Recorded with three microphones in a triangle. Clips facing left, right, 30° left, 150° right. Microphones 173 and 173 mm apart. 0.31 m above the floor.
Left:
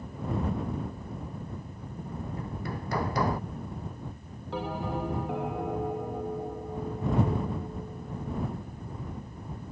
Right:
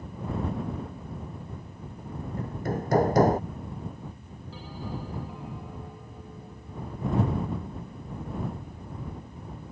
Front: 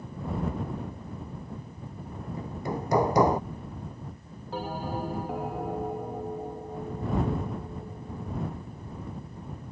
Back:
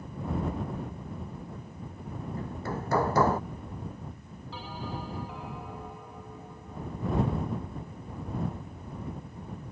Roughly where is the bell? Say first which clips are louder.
Left 6 dB, front 6 dB; left.